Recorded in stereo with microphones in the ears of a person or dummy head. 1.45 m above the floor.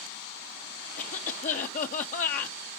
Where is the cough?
45° left (ahead or behind), 0.7 m.